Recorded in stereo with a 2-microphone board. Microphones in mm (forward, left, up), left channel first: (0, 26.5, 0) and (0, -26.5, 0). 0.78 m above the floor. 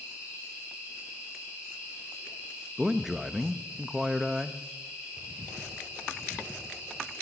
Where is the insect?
20° right (ahead or behind), 8 m.